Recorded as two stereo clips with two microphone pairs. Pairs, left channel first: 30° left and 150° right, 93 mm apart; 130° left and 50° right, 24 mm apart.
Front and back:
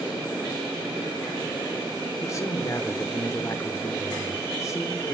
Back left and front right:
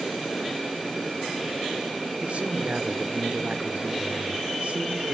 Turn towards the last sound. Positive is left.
turn(degrees=-25)